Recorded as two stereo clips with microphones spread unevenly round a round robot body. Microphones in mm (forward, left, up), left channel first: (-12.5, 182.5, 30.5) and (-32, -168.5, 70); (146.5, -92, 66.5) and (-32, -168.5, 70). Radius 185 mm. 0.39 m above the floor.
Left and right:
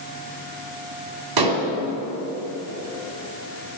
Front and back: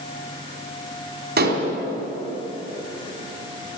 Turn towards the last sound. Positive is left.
turn(degrees=-120)